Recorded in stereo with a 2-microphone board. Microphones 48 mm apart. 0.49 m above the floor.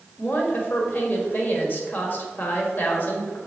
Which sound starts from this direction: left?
A woman speaking, at 0.2 s.